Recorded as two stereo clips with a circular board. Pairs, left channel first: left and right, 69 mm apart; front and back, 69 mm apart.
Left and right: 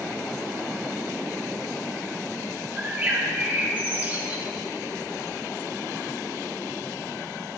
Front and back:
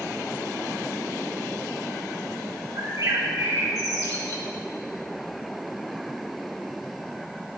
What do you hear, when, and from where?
2.8 s a bird: 155° right, 1.7 m